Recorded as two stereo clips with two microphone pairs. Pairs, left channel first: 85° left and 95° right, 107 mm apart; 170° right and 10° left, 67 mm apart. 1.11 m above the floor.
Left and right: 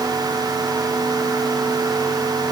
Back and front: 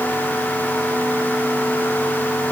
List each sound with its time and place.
Only background noise.